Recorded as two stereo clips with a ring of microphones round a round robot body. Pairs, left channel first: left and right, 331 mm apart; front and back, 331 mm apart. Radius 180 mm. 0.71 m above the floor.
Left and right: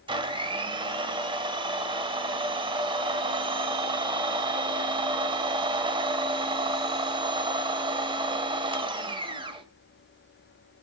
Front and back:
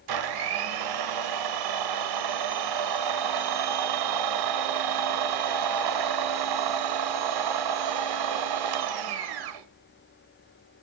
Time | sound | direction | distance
0.1 | a blender | 165° right | 1.4 m